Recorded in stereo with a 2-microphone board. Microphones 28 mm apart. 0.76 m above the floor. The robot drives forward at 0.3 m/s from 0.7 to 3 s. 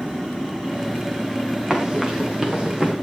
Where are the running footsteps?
25° right (ahead or behind), 5.5 m.